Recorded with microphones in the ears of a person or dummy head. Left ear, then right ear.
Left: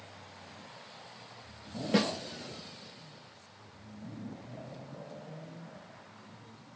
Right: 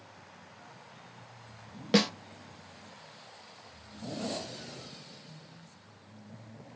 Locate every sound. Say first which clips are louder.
1.9 s a snare drum: right 3 dB; 35° right (ahead or behind), 0.7 m